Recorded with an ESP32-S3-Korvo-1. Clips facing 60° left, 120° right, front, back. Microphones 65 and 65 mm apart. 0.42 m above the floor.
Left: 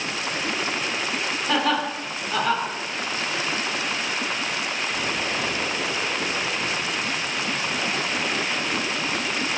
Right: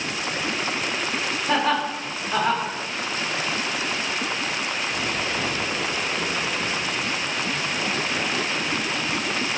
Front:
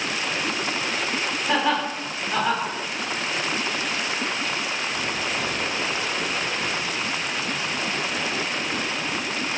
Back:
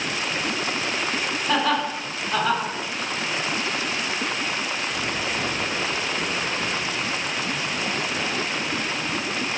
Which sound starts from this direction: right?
Laughter, at 1.5 s.